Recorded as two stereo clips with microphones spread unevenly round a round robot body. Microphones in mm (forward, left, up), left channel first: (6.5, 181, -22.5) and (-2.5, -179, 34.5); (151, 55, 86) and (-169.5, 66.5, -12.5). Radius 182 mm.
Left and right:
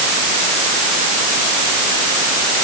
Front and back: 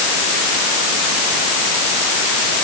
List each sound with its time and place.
Only background noise.